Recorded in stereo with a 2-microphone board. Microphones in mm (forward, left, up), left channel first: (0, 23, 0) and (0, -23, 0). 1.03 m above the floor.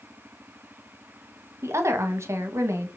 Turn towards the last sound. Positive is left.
turn(degrees=-75)  # may be behind; listen again after turning